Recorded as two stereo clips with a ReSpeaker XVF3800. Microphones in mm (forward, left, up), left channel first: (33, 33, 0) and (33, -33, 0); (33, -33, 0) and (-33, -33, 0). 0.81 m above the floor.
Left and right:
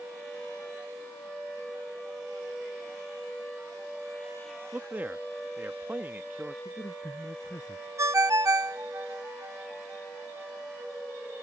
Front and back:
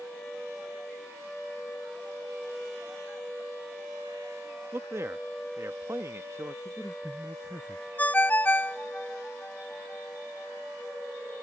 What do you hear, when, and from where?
4.7 s a man speaking: 145° right
6.7 s a man speaking: 100° left
8.0 s a ringtone: 60° right